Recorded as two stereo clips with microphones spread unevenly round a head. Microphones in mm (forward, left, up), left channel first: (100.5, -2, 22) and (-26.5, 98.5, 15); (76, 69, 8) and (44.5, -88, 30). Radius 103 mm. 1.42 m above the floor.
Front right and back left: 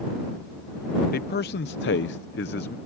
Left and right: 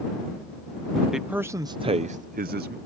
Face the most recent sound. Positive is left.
turn(degrees=-80)